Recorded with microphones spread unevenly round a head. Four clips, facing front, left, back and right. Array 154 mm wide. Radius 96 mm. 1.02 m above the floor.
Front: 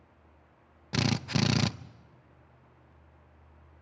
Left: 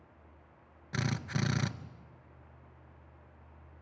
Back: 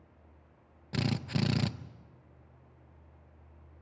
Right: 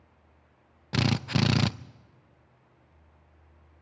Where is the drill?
35° right, 0.6 m.